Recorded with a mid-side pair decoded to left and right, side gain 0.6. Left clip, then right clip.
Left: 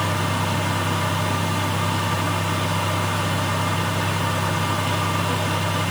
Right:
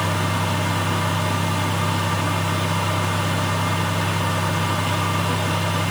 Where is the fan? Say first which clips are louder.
Even; 5° right, 1.0 m.